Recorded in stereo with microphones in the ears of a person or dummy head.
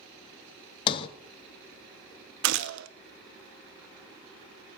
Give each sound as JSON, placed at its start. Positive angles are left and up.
{"t": 0.9, "sound": "a sliding door", "side_deg": 30, "distance_m": 0.6}
{"t": 2.4, "sound": "a gunshot", "side_deg": -75, "distance_m": 0.5}